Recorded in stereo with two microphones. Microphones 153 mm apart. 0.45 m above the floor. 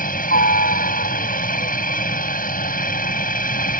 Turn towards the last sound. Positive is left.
turn(degrees=65)  # may be behind; listen again after turning